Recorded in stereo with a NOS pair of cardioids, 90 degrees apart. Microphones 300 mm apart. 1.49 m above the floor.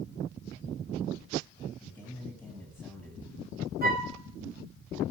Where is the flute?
30° right, 0.9 m.